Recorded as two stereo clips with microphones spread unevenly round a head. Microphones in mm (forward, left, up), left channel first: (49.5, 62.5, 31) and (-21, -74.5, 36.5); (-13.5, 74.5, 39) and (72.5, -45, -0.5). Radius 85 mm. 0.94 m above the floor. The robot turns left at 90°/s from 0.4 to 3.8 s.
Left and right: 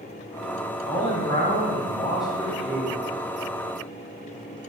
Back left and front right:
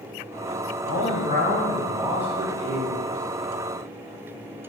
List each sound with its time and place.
0.8 s a man speaking: 130° left, 0.9 m; by 3.0 s 65° right, 0.9 m